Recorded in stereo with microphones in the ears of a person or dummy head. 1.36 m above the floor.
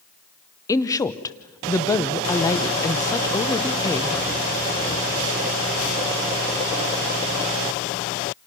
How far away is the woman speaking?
About 0.8 m.